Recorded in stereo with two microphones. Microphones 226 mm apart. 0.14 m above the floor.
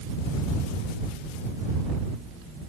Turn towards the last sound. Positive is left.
No sound to turn to.